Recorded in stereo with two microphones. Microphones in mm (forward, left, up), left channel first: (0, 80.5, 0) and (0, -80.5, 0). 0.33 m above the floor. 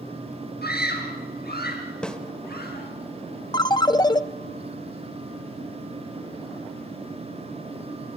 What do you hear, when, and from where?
0.6 s a scream: 80° left, 5 m; by 2.9 s 75° left (ahead or behind), 6 m
2.0 s a snare drum: 5° left (ahead or behind), 1.6 m
3.5 s a ringtone: 25° left (ahead or behind), 0.6 m